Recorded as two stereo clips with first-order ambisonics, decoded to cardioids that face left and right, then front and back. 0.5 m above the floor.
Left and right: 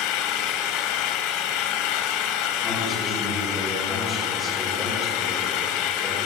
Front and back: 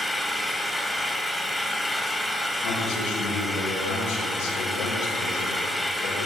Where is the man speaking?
15° left, 5.5 m.